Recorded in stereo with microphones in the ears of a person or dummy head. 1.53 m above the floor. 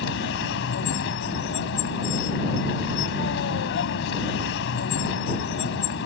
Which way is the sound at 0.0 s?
65° left (ahead or behind).